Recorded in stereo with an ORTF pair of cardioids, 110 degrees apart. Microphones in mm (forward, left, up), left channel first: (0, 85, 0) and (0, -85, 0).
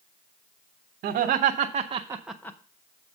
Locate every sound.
1.0 s laughter: 65° right, 1.3 m; by 2.6 s 20° left, 0.7 m